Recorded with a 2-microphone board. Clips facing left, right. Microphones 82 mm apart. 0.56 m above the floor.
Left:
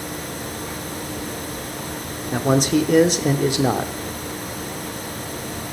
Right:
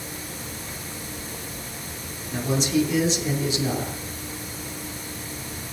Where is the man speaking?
55° left (ahead or behind), 1.0 m.